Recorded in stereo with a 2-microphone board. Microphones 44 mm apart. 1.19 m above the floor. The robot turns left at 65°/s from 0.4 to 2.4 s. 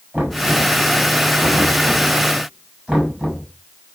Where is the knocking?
40° right (ahead or behind), 9.5 m; by 3.5 s 10° right (ahead or behind), 9.5 m.